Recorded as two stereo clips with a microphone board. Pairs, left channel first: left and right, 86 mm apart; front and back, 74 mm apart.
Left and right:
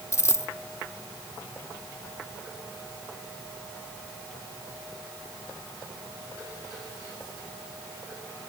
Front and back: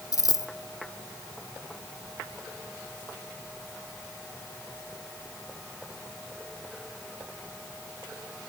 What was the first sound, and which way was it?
A dropped coin, 35° left.